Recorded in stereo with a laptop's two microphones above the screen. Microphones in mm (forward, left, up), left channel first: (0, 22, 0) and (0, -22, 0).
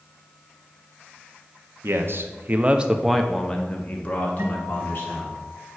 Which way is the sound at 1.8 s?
70° right (ahead or behind).